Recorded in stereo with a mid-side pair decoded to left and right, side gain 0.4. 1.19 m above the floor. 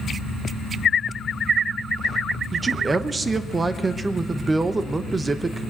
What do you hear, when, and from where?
2.5 s a man speaking: 30° right, 0.9 m